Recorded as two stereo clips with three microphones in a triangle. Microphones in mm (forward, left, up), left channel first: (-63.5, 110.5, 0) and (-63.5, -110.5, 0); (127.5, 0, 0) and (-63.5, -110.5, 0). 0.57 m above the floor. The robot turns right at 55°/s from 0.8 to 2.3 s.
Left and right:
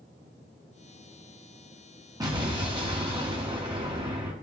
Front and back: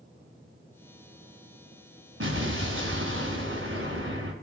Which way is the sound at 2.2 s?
165° right.